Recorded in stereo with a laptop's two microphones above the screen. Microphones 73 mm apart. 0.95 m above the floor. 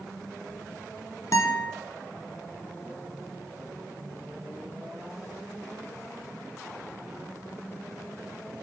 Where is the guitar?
45° left (ahead or behind), 0.5 m.